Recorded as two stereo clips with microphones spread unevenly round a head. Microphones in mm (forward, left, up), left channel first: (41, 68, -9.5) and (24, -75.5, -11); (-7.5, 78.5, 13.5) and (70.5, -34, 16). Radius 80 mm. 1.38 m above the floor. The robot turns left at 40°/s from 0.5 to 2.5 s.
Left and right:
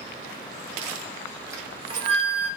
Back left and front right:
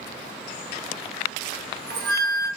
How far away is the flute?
About 0.7 m.